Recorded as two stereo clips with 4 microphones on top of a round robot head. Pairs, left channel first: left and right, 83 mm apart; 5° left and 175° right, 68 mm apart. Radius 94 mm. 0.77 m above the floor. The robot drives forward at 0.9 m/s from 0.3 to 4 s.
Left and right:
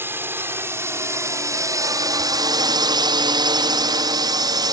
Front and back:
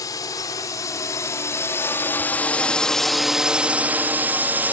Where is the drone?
25° right; by 4.7 s 115° right.